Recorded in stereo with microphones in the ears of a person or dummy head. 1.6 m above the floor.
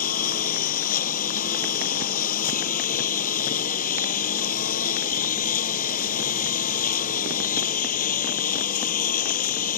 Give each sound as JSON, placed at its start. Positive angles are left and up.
{"t": 0.0, "sound": "a lawn mower", "side_deg": 40}